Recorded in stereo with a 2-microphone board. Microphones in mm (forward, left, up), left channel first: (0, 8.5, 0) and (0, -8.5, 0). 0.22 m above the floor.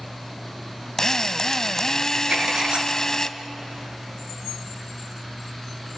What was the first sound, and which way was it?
A drill, 35° left (ahead or behind).